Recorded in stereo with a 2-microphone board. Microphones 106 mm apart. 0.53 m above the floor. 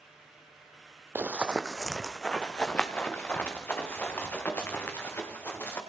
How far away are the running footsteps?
About 0.8 m.